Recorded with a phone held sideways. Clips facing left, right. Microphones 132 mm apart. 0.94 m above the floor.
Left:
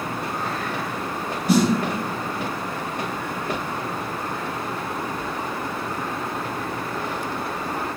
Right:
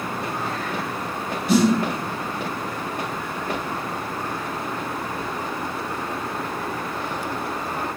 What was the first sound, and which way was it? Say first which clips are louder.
A snare drum: right 1 dB; 40° left (ahead or behind).